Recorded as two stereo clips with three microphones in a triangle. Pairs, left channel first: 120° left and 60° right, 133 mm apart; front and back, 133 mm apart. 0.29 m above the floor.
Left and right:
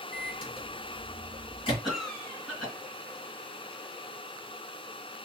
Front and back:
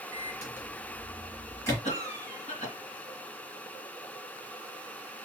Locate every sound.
0.1 s a microwave: 65° left, 3 m
1.8 s a cough: 30° left, 3 m